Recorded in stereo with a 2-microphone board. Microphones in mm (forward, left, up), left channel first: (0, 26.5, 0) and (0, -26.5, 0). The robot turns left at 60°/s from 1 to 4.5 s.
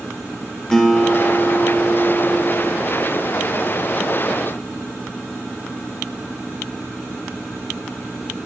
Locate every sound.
0.7 s a guitar: 10° left, 2.5 m; by 2.8 s 100° right, 2.5 m